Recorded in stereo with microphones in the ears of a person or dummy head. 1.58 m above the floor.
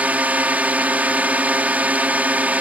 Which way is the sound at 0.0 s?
10° right (ahead or behind).